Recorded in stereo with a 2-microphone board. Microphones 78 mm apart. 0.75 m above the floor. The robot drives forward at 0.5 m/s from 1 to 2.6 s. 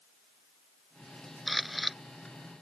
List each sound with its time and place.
1.5 s a camera shutter: centre (ahead or behind)